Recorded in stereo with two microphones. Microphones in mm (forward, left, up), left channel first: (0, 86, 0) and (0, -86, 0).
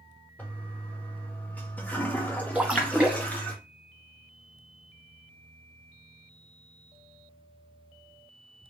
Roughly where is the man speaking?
I don't hear a man speaking.